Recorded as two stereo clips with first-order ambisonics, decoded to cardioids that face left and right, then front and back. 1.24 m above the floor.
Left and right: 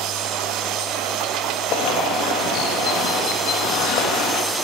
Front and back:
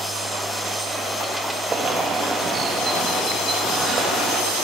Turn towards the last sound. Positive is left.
turn(degrees=115)